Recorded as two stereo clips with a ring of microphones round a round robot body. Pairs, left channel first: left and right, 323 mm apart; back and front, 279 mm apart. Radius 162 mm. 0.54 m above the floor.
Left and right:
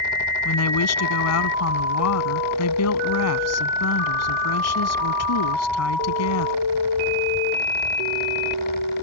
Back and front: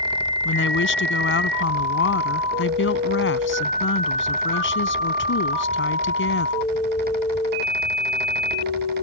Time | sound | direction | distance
0.5 | a woman speaking | 135° left | ?